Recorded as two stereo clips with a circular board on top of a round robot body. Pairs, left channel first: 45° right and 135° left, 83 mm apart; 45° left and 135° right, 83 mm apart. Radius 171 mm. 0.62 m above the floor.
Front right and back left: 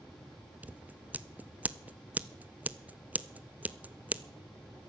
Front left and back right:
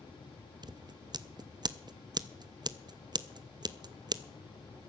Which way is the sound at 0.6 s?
155° right.